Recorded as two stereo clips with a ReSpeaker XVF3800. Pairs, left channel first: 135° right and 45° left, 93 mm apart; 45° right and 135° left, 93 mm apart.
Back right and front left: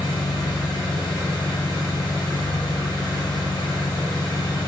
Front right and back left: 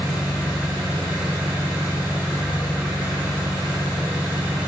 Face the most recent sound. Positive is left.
turn(degrees=-155)